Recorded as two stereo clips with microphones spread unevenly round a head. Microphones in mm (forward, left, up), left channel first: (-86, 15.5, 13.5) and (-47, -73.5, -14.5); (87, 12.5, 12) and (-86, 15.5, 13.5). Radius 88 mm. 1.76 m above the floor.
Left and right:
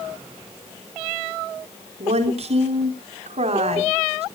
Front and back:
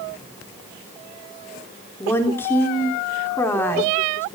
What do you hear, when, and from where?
2.0 s a woman speaking: 80° right, 4 m